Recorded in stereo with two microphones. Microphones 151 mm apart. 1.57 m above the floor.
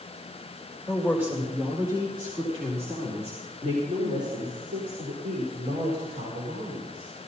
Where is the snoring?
No snoring in this recording.